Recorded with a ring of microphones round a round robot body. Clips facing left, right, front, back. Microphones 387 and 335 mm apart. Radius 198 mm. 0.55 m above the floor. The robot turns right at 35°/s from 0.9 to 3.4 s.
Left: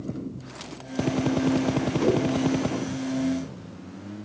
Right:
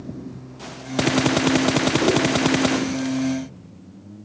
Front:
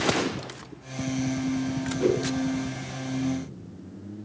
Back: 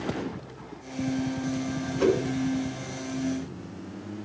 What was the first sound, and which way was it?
A whoosh, 175° left.